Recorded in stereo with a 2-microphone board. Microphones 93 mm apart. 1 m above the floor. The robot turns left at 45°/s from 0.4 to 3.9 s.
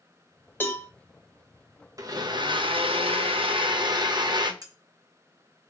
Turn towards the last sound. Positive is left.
turn(degrees=-40)  # may be behind; listen again after turning